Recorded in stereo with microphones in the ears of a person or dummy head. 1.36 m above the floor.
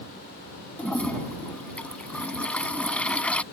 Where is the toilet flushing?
5° left (ahead or behind).